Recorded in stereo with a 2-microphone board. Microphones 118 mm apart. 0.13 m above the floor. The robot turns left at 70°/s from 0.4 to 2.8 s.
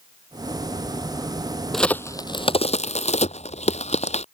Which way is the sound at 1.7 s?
Centre (ahead or behind).